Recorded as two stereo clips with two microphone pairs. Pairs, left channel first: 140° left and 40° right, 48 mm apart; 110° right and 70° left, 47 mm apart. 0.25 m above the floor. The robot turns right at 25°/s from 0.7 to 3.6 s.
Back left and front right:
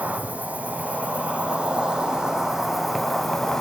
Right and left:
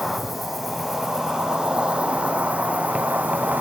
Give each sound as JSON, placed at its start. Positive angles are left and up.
{"t": 0.0, "sound": "an insect", "azimuth_deg": -15, "distance_m": 1.1}